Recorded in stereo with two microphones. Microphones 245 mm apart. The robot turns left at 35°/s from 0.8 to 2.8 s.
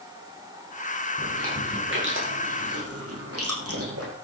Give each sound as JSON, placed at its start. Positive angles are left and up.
{"t": 1.2, "sound": "chewing", "side_deg": -25, "distance_m": 6.0}